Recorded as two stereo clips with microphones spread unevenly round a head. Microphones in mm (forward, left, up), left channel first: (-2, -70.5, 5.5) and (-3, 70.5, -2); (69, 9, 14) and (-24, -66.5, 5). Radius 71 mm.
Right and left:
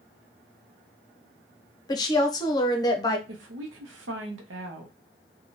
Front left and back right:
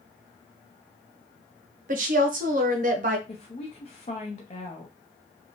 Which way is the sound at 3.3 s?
90° left.